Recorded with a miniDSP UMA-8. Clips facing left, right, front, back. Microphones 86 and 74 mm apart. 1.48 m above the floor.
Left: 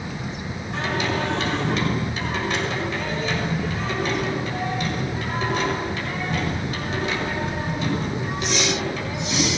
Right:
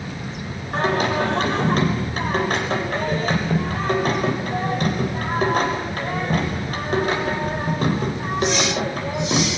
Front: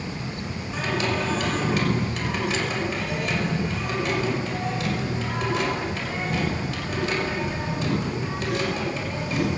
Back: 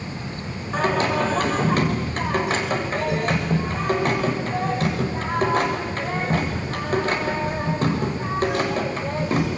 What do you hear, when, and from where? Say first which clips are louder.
0.7 s singing: right 5 dB, back 5 dB; 130° right, 6 m